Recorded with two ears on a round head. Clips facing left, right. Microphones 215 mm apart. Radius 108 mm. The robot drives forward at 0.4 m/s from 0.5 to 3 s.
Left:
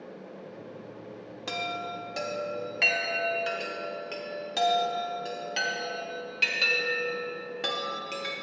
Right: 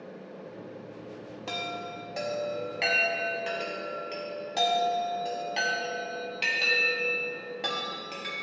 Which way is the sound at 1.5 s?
20° left (ahead or behind).